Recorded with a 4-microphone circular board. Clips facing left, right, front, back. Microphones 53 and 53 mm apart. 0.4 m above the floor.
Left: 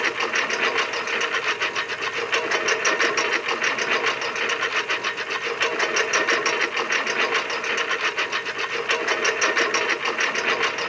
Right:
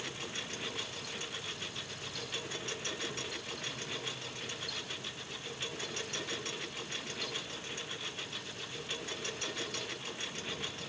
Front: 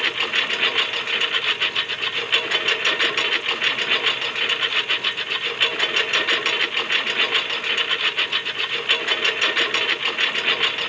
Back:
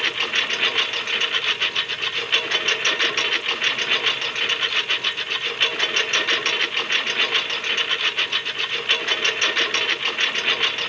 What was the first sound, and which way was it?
A lawn mower, 85° left.